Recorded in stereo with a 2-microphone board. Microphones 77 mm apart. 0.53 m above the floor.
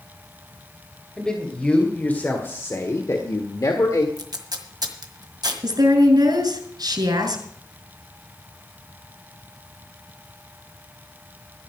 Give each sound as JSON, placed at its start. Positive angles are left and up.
{"t": 1.2, "sound": "a man speaking", "side_deg": 10, "distance_m": 2.5}
{"t": 4.2, "sound": "tape being pulled", "side_deg": -60, "distance_m": 1.6}
{"t": 5.6, "sound": "a woman speaking", "side_deg": -65, "distance_m": 3.0}